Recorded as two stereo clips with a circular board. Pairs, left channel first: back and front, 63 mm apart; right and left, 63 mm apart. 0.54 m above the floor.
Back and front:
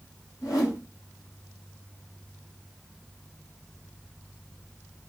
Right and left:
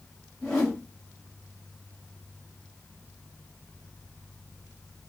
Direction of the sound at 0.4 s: 165° right.